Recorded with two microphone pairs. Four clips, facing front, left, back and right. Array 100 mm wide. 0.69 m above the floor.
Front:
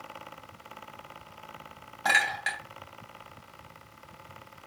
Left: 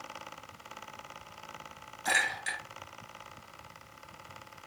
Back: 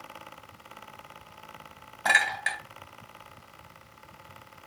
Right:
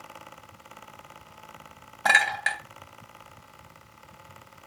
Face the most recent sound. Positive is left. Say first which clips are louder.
# right 8 dB, back 1 dB
turn(degrees=-90)